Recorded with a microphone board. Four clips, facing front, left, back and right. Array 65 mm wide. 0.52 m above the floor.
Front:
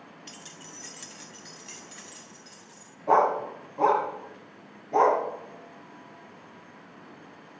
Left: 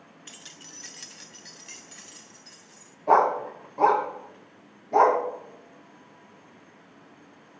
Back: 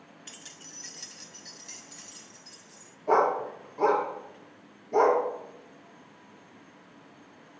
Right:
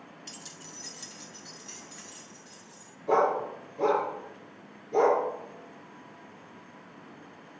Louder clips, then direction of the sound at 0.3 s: Right 1 dB, front 4 dB; 115° left.